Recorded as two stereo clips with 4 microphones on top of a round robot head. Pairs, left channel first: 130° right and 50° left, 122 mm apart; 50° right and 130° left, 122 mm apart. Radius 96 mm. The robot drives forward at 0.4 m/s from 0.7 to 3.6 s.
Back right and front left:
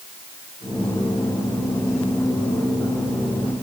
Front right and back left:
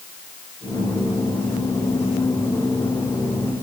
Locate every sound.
Only background noise.